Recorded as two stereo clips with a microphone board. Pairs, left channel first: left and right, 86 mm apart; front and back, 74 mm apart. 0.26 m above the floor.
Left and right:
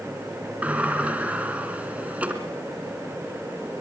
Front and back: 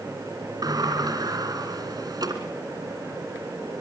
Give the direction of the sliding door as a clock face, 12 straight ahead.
5 o'clock.